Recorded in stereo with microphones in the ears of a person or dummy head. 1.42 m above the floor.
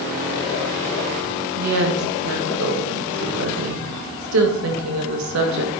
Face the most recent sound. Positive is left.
turn(degrees=-70)  # may be behind; listen again after turning